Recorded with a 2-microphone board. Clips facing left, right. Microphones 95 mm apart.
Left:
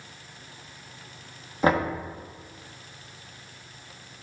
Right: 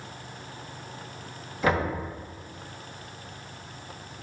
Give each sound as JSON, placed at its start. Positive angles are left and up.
{"t": 1.6, "sound": "knocking", "side_deg": 40, "distance_m": 1.3}